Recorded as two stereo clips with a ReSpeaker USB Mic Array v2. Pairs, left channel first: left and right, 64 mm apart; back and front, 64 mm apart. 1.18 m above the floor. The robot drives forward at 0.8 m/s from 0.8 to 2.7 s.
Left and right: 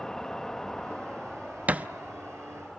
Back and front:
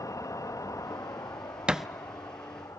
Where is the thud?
55° right, 0.6 m; by 1.9 s 90° right, 0.6 m.